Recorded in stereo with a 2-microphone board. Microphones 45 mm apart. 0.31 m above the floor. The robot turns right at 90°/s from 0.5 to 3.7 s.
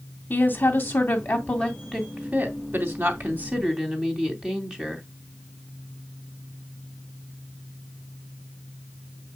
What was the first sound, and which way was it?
A woman speaking, 50° left.